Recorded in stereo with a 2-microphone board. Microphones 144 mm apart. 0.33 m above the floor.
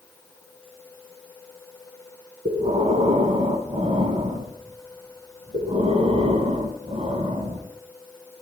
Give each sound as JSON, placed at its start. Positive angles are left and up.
{"t": 2.5, "sound": "breathing", "side_deg": -55, "distance_m": 1.0}